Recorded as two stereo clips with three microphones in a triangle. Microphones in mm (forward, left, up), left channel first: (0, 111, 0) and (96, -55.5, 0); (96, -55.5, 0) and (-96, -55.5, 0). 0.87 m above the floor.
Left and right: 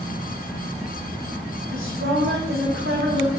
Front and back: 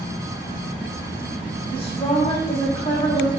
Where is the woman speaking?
60° right, 6.5 m.